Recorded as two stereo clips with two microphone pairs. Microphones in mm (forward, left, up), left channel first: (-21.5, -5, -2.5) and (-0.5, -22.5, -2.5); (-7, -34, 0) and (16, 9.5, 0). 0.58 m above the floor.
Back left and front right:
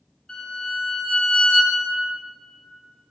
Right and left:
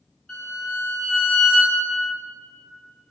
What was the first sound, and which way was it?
A violin, 165° right.